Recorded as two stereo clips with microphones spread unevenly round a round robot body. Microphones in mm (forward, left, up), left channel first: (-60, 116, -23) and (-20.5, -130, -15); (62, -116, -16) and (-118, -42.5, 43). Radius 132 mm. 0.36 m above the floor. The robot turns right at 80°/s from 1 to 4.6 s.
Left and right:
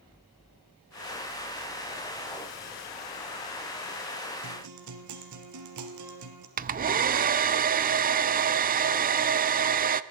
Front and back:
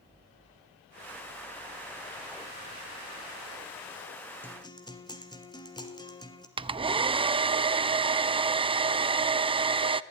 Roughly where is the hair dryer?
Behind right.